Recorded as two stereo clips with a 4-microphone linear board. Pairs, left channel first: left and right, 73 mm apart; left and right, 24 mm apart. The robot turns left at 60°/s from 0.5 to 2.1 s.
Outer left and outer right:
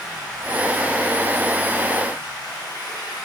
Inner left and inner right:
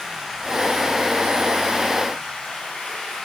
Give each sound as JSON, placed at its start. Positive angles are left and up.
{"t": 0.0, "sound": "running water", "azimuth_deg": -165, "distance_m": 7.0}